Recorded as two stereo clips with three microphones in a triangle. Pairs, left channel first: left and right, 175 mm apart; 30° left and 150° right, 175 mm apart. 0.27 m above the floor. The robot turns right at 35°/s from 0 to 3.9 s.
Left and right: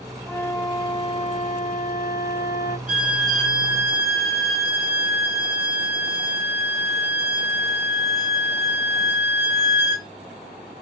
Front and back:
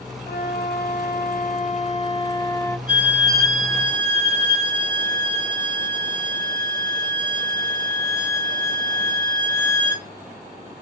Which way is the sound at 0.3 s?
15° left.